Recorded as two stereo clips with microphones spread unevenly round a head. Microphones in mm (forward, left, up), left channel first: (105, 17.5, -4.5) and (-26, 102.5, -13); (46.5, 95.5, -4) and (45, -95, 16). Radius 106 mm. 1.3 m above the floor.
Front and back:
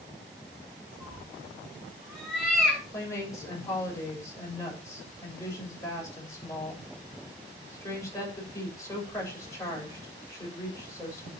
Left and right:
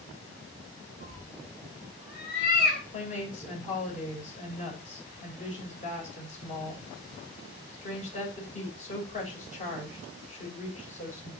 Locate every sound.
1.0 s a cat meowing: 55° left, 6.5 m
2.9 s a woman speaking: 35° left, 7 m